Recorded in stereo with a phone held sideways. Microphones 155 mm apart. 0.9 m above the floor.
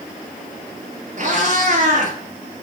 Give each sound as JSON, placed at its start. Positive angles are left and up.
{"t": 1.2, "sound": "a cat meowing", "side_deg": -50, "distance_m": 1.8}